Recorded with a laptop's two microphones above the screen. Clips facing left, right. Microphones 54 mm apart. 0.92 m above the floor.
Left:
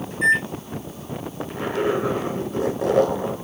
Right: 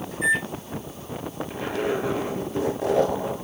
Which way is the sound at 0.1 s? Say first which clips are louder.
Left 4 dB; 85° left.